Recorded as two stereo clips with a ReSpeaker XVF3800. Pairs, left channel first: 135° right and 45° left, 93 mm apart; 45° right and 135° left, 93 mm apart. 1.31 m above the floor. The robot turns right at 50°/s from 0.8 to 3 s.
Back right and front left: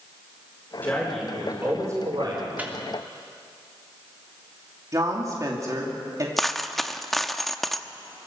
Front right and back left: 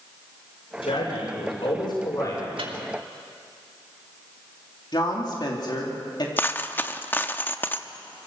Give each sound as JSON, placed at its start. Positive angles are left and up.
{"t": 0.8, "sound": "a man speaking", "azimuth_deg": -65, "distance_m": 5.0}
{"t": 2.6, "sound": "a microwave", "azimuth_deg": 115, "distance_m": 2.5}
{"t": 4.9, "sound": "a woman speaking", "azimuth_deg": -5, "distance_m": 3.0}
{"t": 6.4, "sound": "a dropped coin", "azimuth_deg": -55, "distance_m": 0.8}